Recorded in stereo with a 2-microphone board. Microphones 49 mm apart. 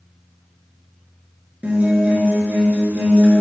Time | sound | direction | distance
1.6 | a guitar | 25° right (ahead or behind) | 1.6 m